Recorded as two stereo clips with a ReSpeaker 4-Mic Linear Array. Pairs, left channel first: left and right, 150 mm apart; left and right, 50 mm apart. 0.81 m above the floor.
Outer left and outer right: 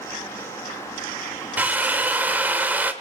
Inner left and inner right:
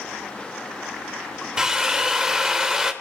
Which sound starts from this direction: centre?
A drill, at 1.6 s.